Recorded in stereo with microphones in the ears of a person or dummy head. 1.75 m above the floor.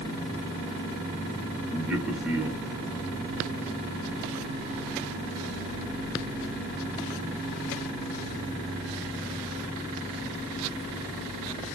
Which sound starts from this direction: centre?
A man speaking, at 1.7 s.